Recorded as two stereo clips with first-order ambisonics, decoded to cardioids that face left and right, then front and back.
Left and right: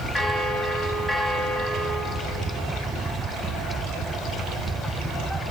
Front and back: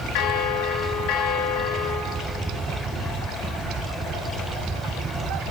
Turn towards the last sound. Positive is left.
turn(degrees=5)